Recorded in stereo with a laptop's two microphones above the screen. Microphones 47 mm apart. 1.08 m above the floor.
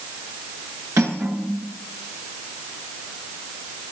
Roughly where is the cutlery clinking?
Right.